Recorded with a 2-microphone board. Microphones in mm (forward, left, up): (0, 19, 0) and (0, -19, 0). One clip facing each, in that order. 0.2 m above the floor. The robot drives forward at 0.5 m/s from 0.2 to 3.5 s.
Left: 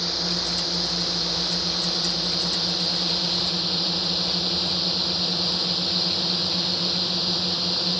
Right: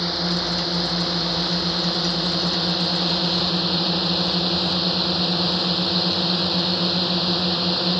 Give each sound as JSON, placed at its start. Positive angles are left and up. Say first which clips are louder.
{"t": 0.0, "sound": "a drone", "louder": "right 4 dB", "side_deg": -20}